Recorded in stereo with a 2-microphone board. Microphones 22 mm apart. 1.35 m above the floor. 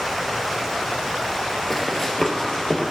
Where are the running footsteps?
15° left (ahead or behind), 1.8 m; by 2.9 s 35° left (ahead or behind), 2 m.